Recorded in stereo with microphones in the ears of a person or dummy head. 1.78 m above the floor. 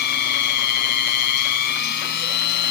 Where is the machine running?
60° left (ahead or behind).